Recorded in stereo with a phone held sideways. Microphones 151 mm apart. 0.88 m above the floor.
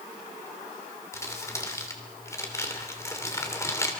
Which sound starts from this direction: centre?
Crumpling, at 1.1 s.